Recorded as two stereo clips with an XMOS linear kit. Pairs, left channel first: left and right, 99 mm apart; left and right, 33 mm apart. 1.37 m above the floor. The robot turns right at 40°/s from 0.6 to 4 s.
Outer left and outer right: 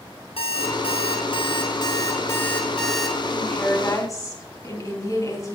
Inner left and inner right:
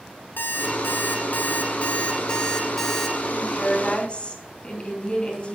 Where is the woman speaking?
5° left (ahead or behind), 3 m; by 5.6 s 35° left (ahead or behind), 3 m.